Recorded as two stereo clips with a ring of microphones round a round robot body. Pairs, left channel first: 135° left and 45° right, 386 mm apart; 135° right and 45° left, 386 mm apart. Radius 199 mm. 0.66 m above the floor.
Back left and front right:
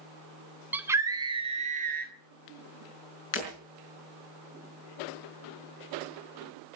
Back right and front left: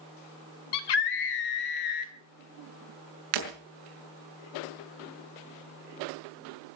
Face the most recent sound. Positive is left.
turn(degrees=75)